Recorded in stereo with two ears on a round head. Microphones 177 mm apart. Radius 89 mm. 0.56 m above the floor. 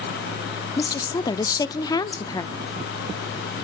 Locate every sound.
0.8 s a woman speaking: 20° left (ahead or behind), 0.6 m